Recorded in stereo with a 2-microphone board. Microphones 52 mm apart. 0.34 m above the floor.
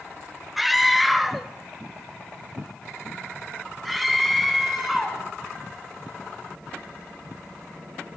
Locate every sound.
0.6 s a scream: 5° right (ahead or behind), 1.1 m; by 5.2 s centre (ahead or behind), 3.5 m